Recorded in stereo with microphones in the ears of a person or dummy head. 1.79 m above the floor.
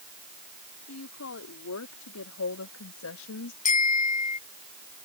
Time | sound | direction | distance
0.9 | a woman speaking | 85° left | ?
3.6 | a bicycle bell | 40° left (ahead or behind) | ?